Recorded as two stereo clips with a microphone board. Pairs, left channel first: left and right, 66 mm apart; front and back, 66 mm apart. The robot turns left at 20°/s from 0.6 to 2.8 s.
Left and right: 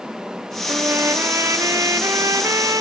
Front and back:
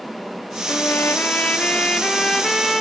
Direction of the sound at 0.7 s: 50° right.